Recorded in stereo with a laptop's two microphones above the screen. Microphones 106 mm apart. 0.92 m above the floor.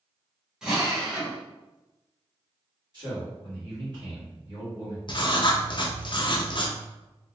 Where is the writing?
50° left (ahead or behind), 0.5 m.